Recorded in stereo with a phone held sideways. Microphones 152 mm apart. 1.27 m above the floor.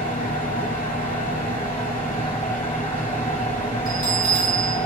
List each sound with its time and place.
0.0 s a fan: 75° left (ahead or behind), 3.5 m
3.9 s a bell: 80° right, 3.5 m